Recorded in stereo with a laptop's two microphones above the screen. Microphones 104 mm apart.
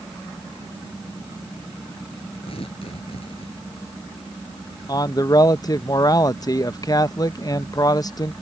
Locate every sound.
2.4 s tearing paper: 65° left (ahead or behind)
4.9 s a man speaking: 40° left (ahead or behind)